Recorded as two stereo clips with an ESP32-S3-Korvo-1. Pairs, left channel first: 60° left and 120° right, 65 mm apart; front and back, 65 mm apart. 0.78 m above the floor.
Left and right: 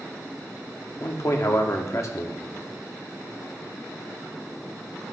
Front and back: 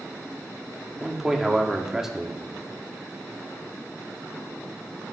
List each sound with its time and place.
1.0 s a man speaking: 95° left, 1.3 m